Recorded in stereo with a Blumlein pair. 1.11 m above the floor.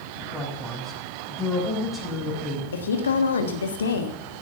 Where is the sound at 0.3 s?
5° left, 5.5 m.